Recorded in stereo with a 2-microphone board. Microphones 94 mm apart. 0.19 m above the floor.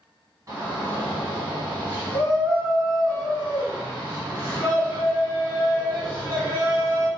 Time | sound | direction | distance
0.5 | a shout | 40° right (ahead or behind) | 1.8 m